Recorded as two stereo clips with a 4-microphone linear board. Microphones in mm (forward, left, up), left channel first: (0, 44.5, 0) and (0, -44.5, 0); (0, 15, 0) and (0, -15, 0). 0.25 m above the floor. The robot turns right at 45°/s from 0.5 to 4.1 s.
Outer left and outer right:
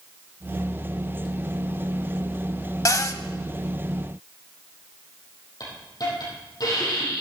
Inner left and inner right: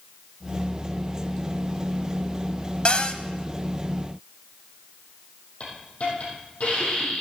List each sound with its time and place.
2.9 s a cupboard door: 40° left (ahead or behind), 0.6 m
5.6 s a hiss: 45° left (ahead or behind), 5.5 m